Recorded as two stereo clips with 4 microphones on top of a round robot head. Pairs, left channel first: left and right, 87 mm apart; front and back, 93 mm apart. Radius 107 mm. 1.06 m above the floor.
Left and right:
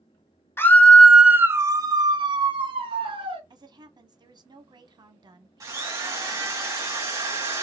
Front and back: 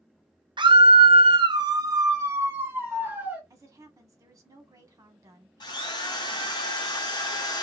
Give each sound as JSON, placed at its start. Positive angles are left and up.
{"t": 0.6, "sound": "a scream", "azimuth_deg": 150, "distance_m": 0.9}
{"t": 3.5, "sound": "a woman speaking", "azimuth_deg": -125, "distance_m": 1.1}
{"t": 5.6, "sound": "a drill", "azimuth_deg": -40, "distance_m": 1.0}